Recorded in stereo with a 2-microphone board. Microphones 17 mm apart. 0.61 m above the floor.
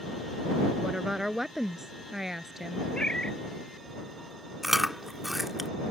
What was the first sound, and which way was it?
A woman speaking, 20° right (ahead or behind).